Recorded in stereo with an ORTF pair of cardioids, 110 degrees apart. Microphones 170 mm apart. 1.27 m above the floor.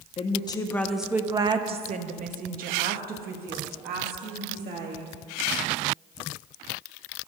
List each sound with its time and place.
0.2 s a woman speaking: 35° left, 0.7 m; by 5.1 s 75° right, 2.5 m